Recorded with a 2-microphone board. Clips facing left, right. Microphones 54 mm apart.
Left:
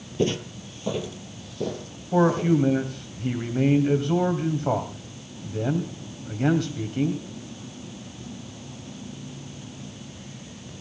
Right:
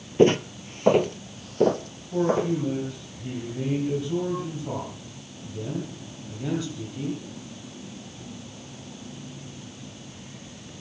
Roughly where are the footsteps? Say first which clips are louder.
Right 7 dB; right.